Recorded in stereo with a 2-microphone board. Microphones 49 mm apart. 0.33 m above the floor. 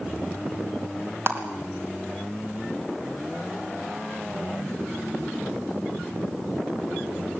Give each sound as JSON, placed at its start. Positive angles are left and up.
{"t": 1.3, "sound": "a clap", "side_deg": -55, "distance_m": 3.0}